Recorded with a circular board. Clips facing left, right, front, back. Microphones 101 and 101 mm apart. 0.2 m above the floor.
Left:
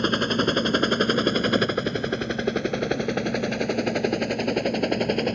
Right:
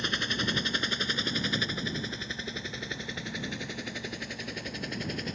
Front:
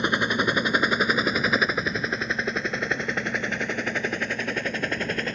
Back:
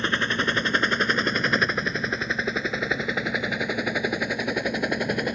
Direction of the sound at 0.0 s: 75° left.